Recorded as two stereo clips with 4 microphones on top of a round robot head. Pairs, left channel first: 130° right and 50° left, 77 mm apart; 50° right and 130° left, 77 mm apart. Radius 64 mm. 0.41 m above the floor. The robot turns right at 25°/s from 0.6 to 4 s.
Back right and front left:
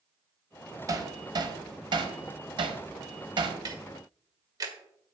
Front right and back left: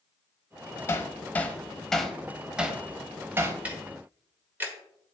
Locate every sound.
0.9 s hammering: 5° left, 1.2 m; by 3.5 s 75° left, 1.2 m
3.6 s ticking: 65° left, 1.7 m; by 4.8 s 70° left, 1.7 m